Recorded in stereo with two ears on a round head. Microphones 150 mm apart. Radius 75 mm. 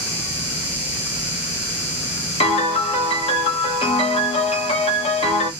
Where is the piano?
35° left (ahead or behind), 1.0 m.